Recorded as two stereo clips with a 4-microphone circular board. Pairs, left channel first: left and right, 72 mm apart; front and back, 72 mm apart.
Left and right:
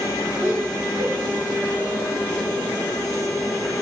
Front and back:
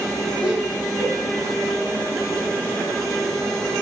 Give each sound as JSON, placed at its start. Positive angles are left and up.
{"t": 0.4, "sound": "laughter", "azimuth_deg": -110, "distance_m": 1.5}